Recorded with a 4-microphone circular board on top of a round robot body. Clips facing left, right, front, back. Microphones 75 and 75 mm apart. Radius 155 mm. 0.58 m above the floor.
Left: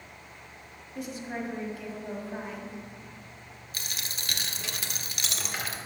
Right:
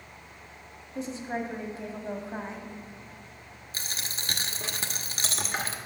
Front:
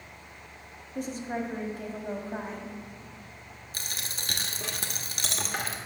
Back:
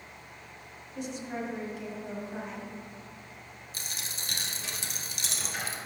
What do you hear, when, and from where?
0.9 s a woman speaking: 35° right, 1.8 m
3.7 s a dropped coin: 35° right, 1.0 m